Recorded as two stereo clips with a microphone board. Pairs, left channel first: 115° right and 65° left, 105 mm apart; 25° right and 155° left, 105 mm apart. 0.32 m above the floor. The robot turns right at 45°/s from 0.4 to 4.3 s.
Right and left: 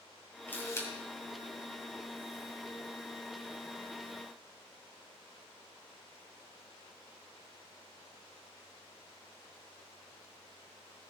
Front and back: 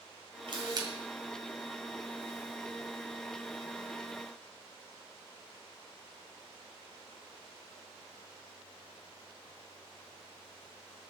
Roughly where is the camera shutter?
Behind.